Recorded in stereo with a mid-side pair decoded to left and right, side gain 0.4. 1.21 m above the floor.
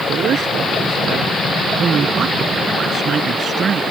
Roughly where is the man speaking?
Right.